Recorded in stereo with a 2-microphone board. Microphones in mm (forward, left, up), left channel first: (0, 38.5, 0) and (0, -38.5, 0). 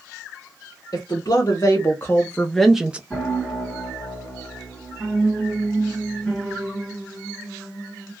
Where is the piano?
Centre (ahead or behind), 1.8 m.